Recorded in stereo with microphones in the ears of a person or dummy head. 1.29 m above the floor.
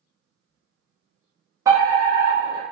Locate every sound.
1.6 s a fire alarm: 20° right (ahead or behind), 0.8 m